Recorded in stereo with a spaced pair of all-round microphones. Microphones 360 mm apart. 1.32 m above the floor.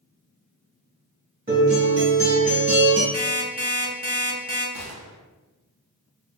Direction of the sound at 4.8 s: 45° right (ahead or behind).